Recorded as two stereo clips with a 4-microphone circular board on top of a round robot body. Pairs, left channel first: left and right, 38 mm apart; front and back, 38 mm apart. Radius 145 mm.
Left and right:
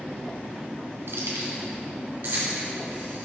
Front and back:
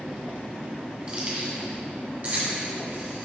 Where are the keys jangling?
115° right, 1.4 m; by 3.3 s 135° right, 3 m.